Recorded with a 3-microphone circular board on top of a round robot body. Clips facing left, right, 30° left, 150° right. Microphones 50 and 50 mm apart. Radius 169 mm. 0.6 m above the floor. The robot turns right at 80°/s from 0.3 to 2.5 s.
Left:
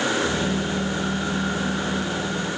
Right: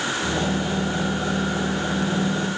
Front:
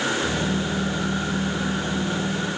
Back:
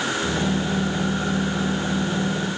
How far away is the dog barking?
No dog barking in this recording.